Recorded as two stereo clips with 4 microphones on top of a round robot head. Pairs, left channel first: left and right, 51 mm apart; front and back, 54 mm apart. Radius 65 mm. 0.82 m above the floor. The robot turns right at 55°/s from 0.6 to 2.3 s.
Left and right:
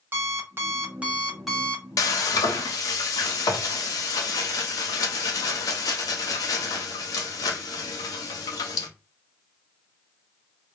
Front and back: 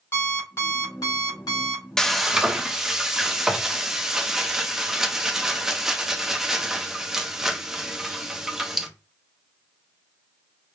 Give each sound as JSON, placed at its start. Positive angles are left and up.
{"t": 0.1, "sound": "an alarm clock", "azimuth_deg": -50, "distance_m": 2.5}
{"t": 2.0, "sound": "frying", "azimuth_deg": 80, "distance_m": 0.7}